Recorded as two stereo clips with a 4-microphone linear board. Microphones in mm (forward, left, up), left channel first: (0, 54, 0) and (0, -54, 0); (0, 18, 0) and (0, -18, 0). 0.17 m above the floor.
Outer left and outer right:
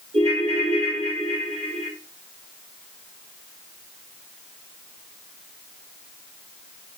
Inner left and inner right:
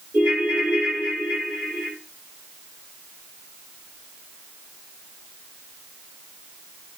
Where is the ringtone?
70° right (ahead or behind), 1.6 m.